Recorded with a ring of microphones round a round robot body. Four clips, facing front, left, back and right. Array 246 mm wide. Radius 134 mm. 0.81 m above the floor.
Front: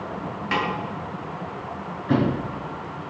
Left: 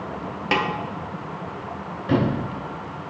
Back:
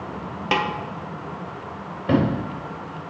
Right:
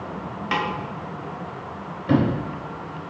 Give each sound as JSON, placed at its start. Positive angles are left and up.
{"t": 0.5, "sound": "a snare drum", "azimuth_deg": 140, "distance_m": 1.1}
{"t": 2.1, "sound": "a sliding door", "azimuth_deg": -170, "distance_m": 3.5}